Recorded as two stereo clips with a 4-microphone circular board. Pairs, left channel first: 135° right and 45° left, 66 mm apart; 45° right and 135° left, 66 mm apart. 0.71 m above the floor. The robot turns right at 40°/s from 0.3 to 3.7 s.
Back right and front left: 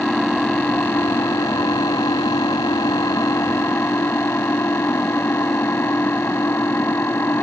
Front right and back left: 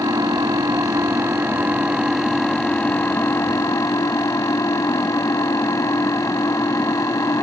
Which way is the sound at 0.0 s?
145° left.